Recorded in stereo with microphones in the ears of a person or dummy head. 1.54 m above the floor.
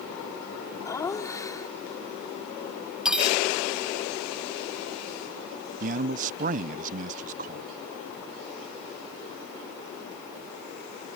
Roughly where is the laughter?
Centre.